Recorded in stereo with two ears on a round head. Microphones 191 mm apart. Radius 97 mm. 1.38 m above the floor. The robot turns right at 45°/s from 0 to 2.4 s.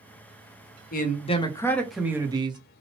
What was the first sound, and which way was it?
A man speaking, 135° left.